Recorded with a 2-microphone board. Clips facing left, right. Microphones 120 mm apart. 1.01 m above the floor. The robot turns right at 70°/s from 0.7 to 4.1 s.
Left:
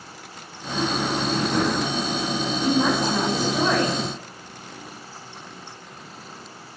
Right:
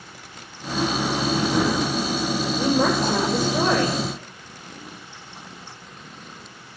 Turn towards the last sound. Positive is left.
turn(degrees=-5)